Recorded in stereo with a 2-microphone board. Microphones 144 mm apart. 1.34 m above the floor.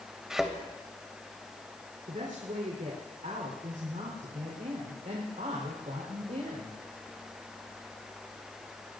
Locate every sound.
0.3 s a thud: 5° right (ahead or behind), 2.5 m
2.1 s a woman speaking: 65° right (ahead or behind), 4 m